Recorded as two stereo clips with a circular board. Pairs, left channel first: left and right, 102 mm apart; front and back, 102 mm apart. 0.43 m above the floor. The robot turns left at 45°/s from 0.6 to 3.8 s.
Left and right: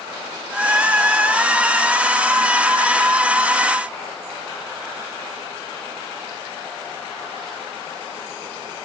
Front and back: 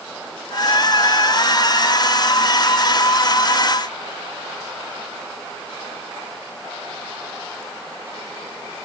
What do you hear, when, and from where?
Only background noise.